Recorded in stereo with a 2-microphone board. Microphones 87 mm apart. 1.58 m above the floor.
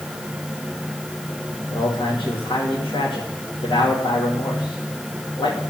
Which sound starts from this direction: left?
A man speaking, at 1.7 s.